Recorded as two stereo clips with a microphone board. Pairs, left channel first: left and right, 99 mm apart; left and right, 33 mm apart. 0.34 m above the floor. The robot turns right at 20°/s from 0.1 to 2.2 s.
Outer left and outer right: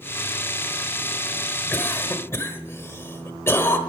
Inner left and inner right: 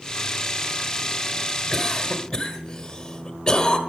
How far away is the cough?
About 1.4 m.